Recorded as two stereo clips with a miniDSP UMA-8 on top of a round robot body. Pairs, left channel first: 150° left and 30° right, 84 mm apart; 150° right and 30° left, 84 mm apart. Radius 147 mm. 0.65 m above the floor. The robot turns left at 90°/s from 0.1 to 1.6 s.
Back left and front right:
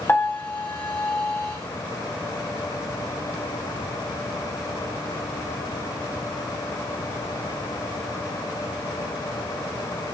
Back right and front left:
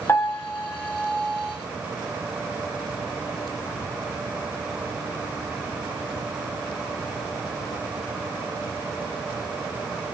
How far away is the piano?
About 0.6 m.